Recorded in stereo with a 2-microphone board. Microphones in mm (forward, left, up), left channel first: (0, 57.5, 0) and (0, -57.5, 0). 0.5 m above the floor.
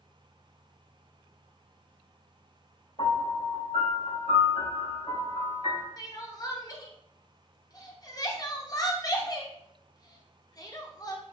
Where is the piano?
55° left (ahead or behind), 2.5 m.